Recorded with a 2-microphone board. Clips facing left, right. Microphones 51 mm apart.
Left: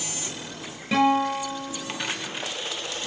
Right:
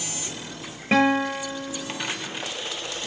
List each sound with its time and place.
0.9 s a guitar: 40° right (ahead or behind), 8 m